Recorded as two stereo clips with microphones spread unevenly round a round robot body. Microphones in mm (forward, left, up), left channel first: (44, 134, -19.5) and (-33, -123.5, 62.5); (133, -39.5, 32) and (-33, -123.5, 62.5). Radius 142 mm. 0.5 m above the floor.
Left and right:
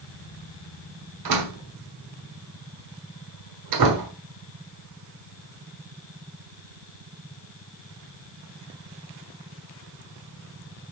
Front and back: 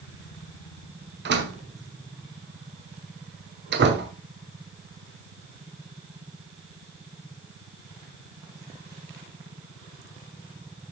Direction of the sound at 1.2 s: 130° right.